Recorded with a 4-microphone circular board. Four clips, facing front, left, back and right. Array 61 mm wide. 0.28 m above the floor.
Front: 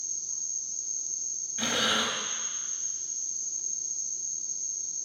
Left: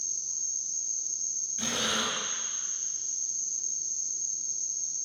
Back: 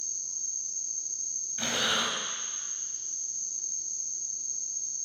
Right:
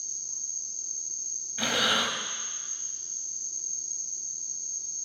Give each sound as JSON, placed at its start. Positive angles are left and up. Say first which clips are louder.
{"t": 0.0, "sound": "an insect", "louder": "left 2 dB, even", "azimuth_deg": 30, "distance_m": 1.0}
{"t": 1.6, "sound": "breathing", "louder": "right 5 dB, front 2 dB", "azimuth_deg": -85, "distance_m": 0.8}